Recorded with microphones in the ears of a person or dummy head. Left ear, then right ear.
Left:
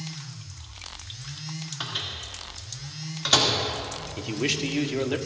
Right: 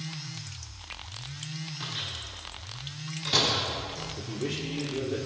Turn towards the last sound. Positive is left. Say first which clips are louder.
# left 10 dB
turn(degrees=75)  # may be behind; listen again after turning